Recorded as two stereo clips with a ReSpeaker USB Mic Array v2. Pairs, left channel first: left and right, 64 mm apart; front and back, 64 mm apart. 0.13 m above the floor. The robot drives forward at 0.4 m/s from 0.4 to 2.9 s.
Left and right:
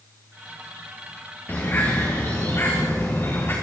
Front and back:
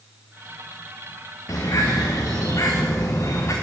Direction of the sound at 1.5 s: 35° left.